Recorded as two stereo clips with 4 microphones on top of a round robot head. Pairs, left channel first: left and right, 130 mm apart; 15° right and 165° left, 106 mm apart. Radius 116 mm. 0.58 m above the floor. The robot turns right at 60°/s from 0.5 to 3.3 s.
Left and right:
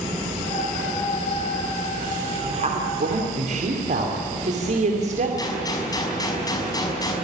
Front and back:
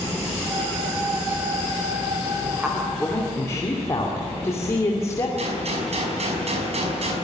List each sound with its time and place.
2.4 s a woman speaking: 125° right, 2.5 m; by 5.3 s 75° right, 2.5 m
5.4 s a gunshot: 150° left, 5.5 m